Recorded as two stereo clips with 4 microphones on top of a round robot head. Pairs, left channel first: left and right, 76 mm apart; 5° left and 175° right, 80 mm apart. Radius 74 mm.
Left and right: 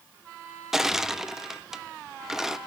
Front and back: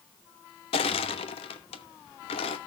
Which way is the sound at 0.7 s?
5° right.